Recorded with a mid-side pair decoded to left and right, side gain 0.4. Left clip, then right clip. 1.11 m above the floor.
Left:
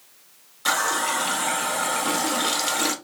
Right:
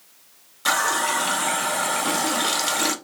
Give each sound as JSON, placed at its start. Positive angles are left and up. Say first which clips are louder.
{"t": 0.7, "sound": "a running tap", "louder": "right 1 dB", "azimuth_deg": -10, "distance_m": 0.6}